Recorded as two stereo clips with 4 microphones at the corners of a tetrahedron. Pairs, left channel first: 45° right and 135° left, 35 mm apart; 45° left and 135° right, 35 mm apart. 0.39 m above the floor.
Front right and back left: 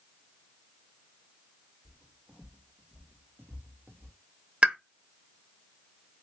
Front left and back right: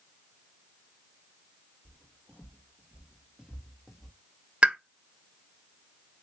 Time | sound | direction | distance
1.9 | footsteps | 155° right | 1.4 m
4.6 | a pop | straight behind | 0.6 m